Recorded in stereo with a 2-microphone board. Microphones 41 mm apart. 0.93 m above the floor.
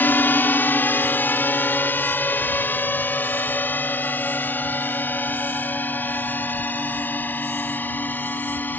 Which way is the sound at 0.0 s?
55° left (ahead or behind).